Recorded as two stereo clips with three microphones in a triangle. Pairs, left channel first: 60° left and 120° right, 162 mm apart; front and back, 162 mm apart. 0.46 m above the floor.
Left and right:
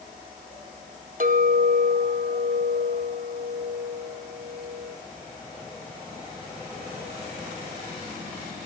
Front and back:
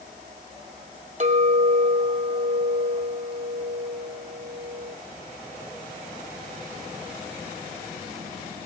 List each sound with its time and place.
1.2 s a clink: 145° right, 1.9 m